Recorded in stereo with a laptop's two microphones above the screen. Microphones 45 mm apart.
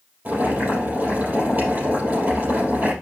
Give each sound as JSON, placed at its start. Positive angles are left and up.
{"t": 0.2, "sound": "boiling", "side_deg": -45, "distance_m": 4.5}